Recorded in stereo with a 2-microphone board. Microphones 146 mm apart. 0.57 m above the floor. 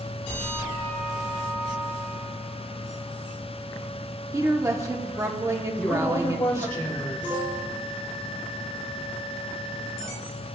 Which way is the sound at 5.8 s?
15° left (ahead or behind).